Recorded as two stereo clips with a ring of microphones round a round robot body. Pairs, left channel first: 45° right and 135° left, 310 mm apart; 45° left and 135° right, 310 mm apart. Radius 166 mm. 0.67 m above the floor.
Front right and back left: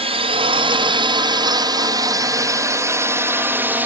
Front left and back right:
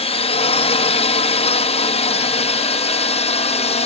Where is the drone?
90° left; by 3.9 s 60° left.